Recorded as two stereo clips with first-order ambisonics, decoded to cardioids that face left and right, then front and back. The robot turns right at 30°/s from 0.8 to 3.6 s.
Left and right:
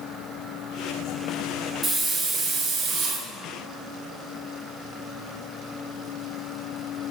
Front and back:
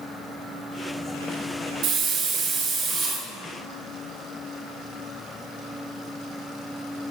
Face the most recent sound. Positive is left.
turn(degrees=-120)